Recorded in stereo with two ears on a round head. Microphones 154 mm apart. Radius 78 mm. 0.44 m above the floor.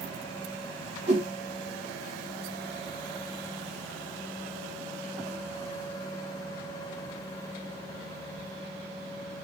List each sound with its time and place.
1.1 s a whoosh: 45° right (ahead or behind), 1.8 m